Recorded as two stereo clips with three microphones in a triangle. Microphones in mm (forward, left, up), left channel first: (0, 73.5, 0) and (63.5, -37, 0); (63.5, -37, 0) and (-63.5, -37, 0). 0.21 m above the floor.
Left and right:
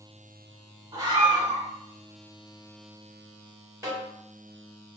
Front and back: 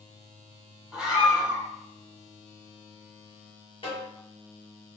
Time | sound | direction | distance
0.9 | a scream | 100° right | 1.9 m
3.8 | a snare drum | 5° right | 2 m